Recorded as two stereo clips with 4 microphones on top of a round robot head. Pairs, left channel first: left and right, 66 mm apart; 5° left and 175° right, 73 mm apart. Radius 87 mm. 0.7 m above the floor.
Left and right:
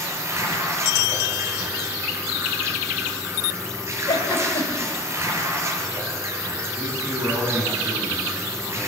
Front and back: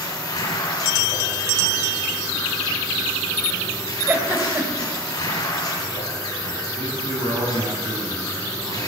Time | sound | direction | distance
0.0 | running water | 40° right | 4.5 m
4.1 | a giggle | 120° left | 3.5 m
6.8 | a man speaking | 165° right | 8.5 m